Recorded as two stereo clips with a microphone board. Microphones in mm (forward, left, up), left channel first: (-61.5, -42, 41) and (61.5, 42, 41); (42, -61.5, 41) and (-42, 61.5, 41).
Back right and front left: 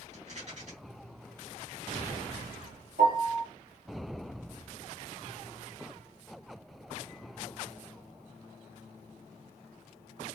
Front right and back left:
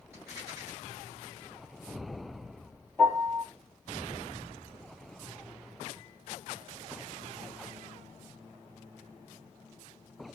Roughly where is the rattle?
Ahead left.